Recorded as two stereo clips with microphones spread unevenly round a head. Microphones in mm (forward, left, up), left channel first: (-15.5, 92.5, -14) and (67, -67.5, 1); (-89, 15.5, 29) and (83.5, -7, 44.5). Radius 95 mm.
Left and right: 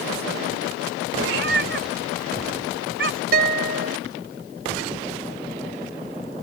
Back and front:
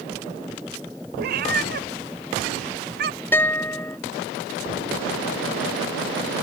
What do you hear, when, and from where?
1.2 s a cat meowing: 45° right
3.3 s a guitar: 110° right